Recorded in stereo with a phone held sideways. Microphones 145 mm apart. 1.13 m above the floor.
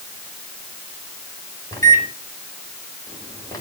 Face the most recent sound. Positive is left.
turn(degrees=25)  # may be behind; listen again after turning